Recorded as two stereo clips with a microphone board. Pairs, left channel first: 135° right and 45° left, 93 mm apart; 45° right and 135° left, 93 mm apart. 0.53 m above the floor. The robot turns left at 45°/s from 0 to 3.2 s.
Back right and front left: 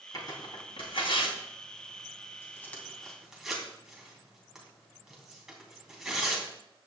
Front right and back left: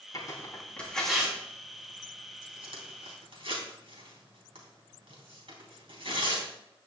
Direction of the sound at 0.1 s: 90° right.